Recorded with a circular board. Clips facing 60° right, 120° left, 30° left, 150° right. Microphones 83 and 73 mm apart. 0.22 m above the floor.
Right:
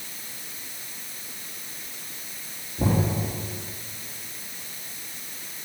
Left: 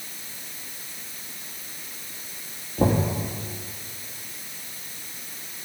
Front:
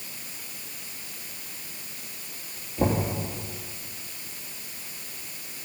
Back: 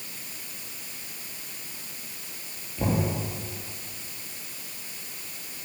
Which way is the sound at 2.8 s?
100° left.